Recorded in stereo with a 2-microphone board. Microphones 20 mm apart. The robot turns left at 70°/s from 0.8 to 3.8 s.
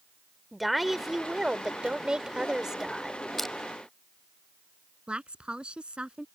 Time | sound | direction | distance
0.5 | a woman speaking | 5° right | ?
3.4 | crushing | 10° left (ahead or behind) | ?
5.1 | a woman speaking | 60° right (ahead or behind) | ?